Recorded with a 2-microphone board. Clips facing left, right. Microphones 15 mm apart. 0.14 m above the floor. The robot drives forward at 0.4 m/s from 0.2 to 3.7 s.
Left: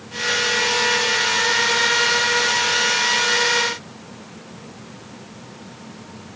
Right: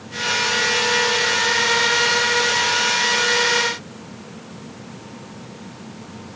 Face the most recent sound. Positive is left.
No sound to turn to.